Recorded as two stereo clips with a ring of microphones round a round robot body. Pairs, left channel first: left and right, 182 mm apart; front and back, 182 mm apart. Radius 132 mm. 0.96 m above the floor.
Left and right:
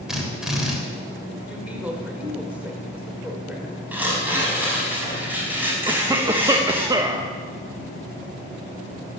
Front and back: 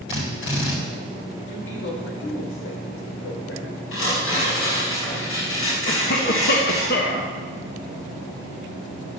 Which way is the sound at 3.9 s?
10° right.